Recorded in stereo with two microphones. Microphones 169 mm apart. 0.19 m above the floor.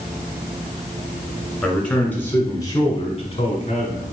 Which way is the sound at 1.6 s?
5° left (ahead or behind).